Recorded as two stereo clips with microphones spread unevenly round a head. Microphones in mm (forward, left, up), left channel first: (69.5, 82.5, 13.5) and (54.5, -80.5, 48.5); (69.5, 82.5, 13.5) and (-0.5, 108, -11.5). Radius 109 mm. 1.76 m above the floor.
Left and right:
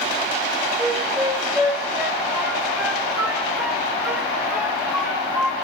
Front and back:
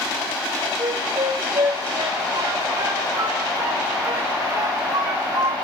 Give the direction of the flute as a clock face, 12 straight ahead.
5 o'clock.